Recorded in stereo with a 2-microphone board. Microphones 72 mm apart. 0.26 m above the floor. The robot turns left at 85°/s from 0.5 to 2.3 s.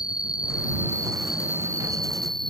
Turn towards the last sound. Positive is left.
turn(degrees=-90)